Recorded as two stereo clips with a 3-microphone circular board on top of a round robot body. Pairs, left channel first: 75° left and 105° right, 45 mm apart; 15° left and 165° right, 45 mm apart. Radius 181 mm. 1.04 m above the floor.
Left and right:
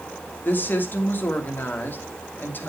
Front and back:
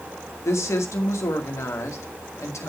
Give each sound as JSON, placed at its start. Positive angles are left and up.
{"t": 0.5, "sound": "a woman speaking", "azimuth_deg": 25, "distance_m": 1.8}